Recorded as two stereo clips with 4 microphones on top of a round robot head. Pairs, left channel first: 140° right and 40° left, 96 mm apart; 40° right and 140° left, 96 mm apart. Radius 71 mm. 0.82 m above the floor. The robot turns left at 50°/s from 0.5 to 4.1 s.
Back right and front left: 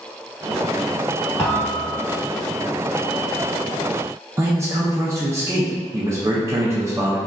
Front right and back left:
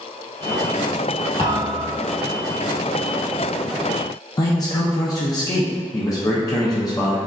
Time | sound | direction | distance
1.4 | a thud | 65° right | 0.9 m
4.4 | a man speaking | 10° right | 0.6 m